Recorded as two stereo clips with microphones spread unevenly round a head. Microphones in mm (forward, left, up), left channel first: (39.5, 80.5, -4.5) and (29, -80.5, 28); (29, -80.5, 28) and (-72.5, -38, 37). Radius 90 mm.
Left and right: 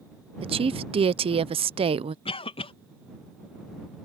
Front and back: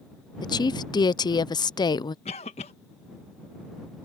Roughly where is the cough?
Ahead left.